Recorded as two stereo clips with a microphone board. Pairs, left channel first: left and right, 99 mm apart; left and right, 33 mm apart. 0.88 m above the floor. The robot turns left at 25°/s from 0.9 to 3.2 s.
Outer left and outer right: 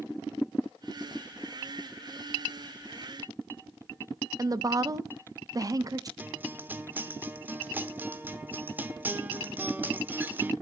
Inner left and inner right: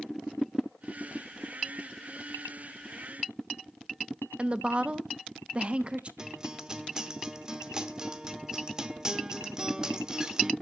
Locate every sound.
4.4 s a woman speaking: 35° right (ahead or behind), 0.5 m
6.2 s a guitar: 20° right (ahead or behind), 0.7 m